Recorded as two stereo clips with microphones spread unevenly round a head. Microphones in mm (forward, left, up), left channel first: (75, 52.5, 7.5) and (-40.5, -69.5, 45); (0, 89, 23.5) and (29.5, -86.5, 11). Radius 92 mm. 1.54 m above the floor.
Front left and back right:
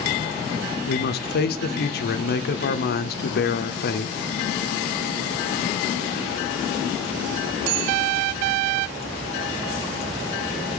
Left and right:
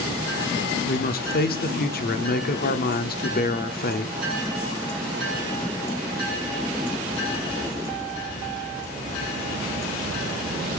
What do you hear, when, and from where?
0.9 s a man speaking: 60° left, 0.8 m